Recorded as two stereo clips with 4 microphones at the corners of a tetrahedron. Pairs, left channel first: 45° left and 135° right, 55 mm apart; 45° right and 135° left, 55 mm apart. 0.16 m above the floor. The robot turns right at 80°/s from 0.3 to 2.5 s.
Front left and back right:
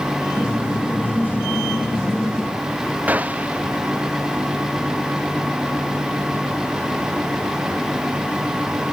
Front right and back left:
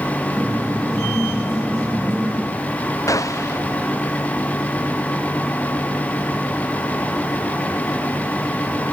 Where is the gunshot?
70° right.